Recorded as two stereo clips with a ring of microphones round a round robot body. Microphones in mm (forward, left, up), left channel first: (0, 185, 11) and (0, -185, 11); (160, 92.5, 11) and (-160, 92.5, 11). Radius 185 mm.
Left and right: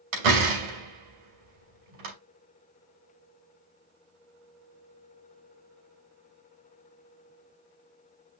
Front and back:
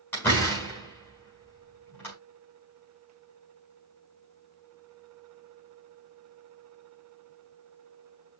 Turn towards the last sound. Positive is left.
turn(degrees=-85)